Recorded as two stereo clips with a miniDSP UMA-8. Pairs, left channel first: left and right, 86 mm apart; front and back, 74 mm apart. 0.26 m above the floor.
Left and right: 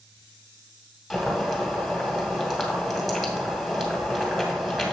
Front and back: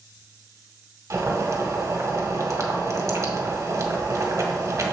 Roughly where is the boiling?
Behind.